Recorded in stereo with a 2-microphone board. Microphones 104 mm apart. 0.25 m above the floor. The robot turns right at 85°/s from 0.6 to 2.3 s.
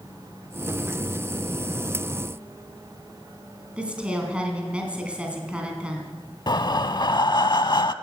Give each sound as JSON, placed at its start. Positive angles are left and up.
{"t": 3.8, "sound": "a woman speaking", "side_deg": -10, "distance_m": 2.5}
{"t": 6.5, "sound": "breathing", "side_deg": 45, "distance_m": 0.5}